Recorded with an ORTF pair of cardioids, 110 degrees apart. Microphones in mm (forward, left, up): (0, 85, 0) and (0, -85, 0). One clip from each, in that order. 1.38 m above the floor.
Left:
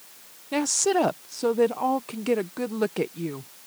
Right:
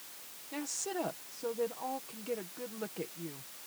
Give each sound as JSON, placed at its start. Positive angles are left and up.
{"t": 0.5, "sound": "a woman speaking", "azimuth_deg": 70}